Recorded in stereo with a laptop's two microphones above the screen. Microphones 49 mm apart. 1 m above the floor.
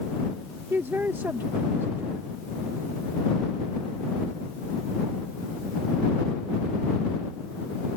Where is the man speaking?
40° right (ahead or behind).